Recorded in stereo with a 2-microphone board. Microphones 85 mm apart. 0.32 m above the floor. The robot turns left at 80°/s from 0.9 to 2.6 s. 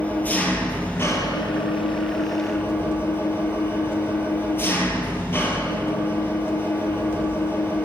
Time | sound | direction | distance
0.0 | an engine running | 160° left | 1.7 m